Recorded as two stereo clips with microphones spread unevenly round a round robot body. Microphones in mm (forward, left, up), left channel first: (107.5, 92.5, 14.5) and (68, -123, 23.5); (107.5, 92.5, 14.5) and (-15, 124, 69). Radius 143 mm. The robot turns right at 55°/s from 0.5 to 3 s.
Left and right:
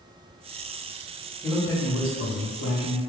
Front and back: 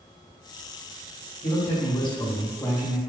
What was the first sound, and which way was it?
A man speaking, 5° right.